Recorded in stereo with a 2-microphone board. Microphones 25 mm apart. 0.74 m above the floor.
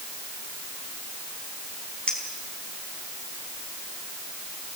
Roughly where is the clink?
Left.